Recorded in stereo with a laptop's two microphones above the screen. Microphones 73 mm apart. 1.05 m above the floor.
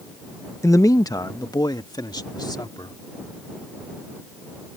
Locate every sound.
0.6 s a man speaking: 45° left (ahead or behind); by 3.0 s 80° left